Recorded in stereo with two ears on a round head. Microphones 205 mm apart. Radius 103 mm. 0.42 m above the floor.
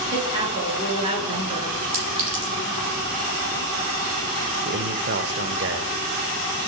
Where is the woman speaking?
25° right (ahead or behind), 7 m.